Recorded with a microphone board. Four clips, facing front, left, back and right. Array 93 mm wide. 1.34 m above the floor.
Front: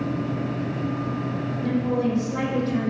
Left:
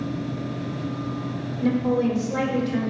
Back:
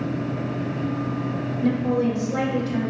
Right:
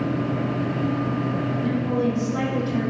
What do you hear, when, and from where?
1.6 s a woman speaking: 100° left, 3.5 m; by 2.9 s 95° left, 5.5 m